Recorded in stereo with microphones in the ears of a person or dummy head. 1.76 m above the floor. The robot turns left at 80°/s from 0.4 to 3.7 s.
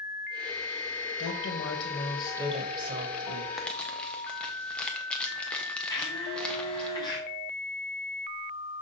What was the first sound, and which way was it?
A woman speaking, 80° left.